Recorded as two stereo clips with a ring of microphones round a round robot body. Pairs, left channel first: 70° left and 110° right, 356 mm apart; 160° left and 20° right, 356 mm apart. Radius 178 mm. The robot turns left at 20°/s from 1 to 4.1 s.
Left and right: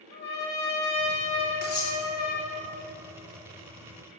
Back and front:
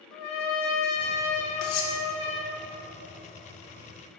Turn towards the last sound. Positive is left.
turn(degrees=85)